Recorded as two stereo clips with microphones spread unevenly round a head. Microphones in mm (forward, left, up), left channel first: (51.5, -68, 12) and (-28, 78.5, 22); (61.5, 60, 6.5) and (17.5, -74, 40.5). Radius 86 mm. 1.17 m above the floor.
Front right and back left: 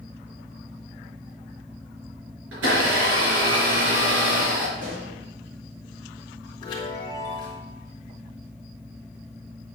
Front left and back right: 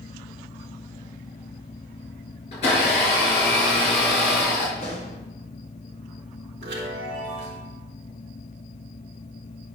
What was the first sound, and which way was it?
A blender, 125° left.